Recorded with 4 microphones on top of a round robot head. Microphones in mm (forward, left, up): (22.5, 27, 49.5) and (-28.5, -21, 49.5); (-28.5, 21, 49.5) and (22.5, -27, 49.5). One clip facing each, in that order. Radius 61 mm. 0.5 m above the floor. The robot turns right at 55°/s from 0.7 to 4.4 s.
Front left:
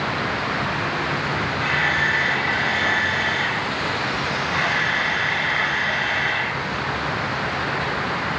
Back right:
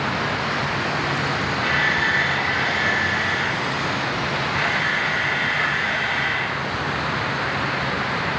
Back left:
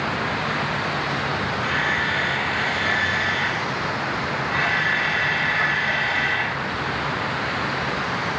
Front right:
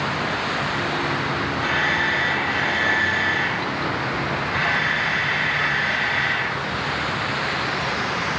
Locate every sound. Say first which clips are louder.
1.6 s a camera shutter: even, front right 2 dB; 75° right, 7 m; by 6.6 s 80° left, 7 m